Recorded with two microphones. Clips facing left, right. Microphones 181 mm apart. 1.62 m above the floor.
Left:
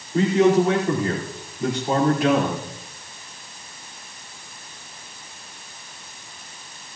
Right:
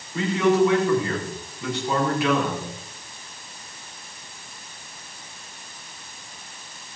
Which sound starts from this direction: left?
A man speaking, at 0.1 s.